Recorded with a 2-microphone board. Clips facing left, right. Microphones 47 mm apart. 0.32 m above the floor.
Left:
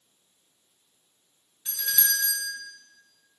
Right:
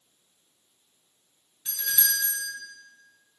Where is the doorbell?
Centre (ahead or behind), 1.4 m.